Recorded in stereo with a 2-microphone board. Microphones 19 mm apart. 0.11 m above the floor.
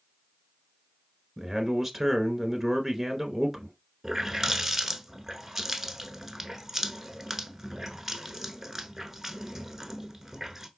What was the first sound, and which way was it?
A man speaking, 15° right (ahead or behind).